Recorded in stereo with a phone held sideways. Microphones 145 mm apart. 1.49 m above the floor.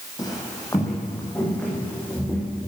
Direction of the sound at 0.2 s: 30° left (ahead or behind).